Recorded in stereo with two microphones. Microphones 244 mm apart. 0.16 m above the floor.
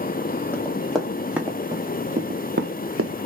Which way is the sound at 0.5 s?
5° left (ahead or behind).